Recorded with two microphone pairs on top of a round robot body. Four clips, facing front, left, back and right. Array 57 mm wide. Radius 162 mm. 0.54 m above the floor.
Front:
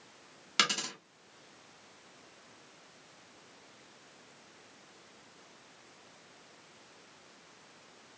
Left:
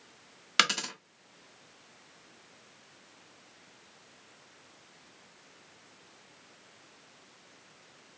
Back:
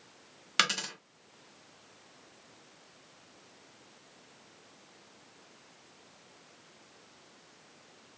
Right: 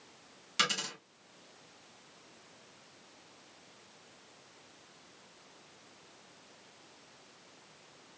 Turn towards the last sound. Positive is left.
turn(degrees=105)